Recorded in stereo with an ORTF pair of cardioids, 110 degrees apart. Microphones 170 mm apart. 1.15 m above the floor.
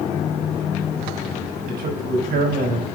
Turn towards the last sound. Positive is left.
turn(degrees=-70)